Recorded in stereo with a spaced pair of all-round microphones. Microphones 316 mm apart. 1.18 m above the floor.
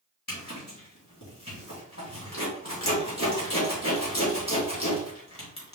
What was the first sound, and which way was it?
A zipper, 60° left (ahead or behind).